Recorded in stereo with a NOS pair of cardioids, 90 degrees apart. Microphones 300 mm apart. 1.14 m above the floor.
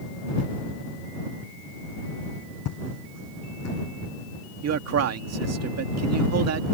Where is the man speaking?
60° right.